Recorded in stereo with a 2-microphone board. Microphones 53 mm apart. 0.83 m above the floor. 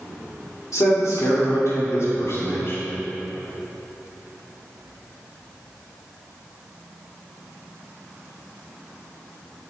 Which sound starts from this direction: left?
A man speaking, at 0.7 s.